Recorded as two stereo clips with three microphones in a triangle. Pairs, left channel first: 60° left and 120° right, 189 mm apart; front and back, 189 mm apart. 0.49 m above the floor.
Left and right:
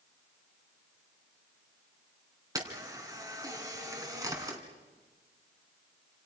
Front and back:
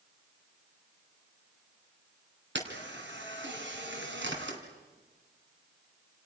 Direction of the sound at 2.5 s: 170° left.